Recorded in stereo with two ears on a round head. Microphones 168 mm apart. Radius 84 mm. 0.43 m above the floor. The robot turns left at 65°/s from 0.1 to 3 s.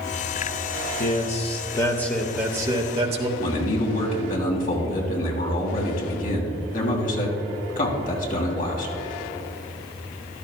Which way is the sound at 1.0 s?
80° left.